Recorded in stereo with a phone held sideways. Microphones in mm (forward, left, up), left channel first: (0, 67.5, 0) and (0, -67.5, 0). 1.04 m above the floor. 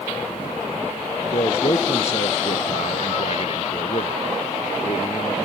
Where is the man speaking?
50° left (ahead or behind).